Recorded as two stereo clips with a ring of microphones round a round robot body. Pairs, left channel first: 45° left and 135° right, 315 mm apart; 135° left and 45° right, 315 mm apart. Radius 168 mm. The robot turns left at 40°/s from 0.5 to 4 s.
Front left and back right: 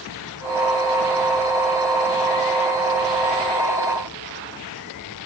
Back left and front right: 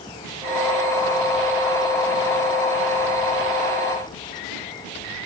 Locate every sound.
Only background noise.